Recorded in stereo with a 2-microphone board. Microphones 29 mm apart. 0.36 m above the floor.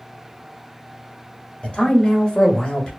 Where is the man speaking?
40° left (ahead or behind), 1.1 m; by 2.9 s 30° left (ahead or behind), 1.3 m.